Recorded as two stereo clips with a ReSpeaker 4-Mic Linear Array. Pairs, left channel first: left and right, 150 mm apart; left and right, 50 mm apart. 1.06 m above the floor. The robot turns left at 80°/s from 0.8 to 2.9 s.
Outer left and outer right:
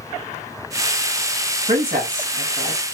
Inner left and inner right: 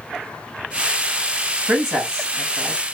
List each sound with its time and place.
1.7 s a man speaking: 60° right, 1.7 m; by 2.9 s 155° right, 1.7 m